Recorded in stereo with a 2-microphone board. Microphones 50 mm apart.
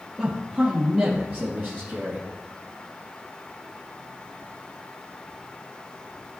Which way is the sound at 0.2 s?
15° right (ahead or behind).